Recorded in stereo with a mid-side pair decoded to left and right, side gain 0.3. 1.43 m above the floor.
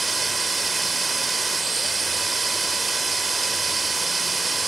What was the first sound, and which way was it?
A machine running, 40° right.